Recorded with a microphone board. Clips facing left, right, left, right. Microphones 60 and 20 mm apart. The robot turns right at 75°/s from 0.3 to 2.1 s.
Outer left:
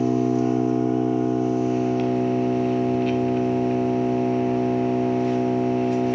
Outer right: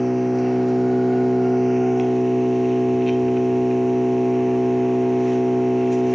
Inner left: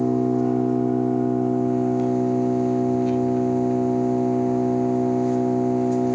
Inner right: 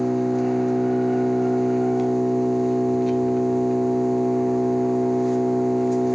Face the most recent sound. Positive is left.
turn(degrees=-5)